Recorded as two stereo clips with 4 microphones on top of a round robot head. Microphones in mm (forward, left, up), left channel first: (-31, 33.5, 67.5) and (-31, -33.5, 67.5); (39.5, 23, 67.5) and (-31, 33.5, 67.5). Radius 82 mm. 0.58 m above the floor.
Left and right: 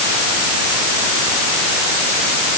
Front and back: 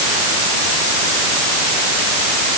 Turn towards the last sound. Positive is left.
No sound to turn to.